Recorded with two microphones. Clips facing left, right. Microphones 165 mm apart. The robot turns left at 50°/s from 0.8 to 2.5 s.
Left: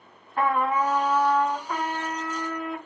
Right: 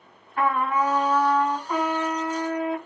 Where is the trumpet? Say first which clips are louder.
Even; 45° left, 2 m; by 2.8 s 40° right, 2 m.